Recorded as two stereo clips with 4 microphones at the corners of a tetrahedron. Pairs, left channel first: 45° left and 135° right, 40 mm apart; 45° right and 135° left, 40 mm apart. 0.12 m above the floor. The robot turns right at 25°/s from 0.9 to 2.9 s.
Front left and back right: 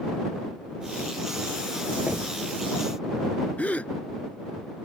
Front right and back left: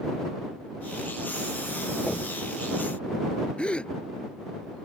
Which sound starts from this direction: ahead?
A gasp, at 3.6 s.